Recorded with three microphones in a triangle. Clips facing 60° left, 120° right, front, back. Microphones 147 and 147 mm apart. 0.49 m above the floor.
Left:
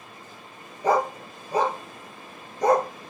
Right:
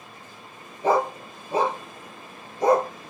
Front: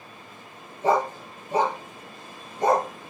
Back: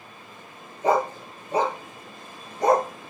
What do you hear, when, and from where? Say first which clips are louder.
0.8 s a dog barking: right 1 dB, even; 60° right, 3.5 m